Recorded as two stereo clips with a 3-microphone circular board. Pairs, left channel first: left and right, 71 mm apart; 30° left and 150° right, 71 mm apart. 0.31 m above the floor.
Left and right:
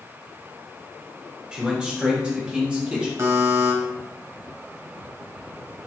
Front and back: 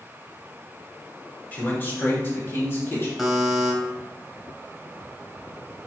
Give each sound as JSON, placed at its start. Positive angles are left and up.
{"t": 1.5, "sound": "a man speaking", "azimuth_deg": -20, "distance_m": 1.1}
{"t": 3.2, "sound": "a buzzer", "azimuth_deg": -60, "distance_m": 1.0}